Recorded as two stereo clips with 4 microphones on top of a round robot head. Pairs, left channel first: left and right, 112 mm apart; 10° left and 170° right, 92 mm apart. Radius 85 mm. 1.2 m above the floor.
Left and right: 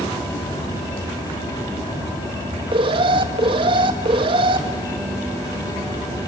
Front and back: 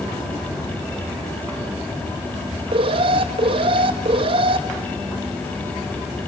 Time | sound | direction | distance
2.7 | an alarm | 140° right | 2 m